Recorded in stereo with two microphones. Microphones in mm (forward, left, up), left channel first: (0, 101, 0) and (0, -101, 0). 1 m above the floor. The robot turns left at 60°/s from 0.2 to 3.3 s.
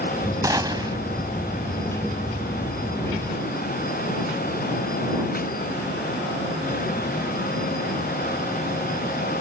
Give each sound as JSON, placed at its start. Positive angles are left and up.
{"t": 0.4, "sound": "a gunshot", "side_deg": -15}